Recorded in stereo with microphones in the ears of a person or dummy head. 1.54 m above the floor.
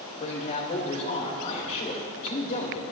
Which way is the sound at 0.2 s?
45° left (ahead or behind).